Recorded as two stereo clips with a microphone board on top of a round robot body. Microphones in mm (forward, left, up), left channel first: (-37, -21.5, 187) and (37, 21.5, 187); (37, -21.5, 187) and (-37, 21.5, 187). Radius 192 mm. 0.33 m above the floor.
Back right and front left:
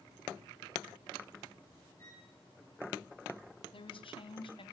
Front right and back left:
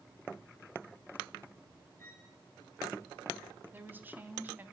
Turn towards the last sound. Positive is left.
turn(degrees=-140)